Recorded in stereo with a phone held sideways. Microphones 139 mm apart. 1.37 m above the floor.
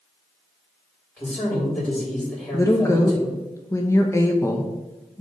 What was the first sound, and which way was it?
A man speaking, 10° left (ahead or behind).